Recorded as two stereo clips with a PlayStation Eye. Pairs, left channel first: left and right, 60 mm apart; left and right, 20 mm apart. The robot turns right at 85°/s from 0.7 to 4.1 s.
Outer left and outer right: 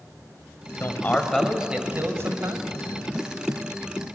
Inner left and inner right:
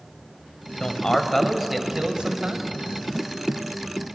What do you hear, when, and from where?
0.8 s a man speaking: 125° left, 2 m; by 2.7 s 75° right, 2 m